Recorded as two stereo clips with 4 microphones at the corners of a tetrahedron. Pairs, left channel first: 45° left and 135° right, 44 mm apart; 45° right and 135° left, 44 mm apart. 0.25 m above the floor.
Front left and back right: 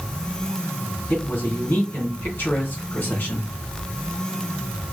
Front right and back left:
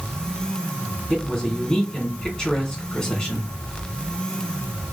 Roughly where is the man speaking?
Ahead left.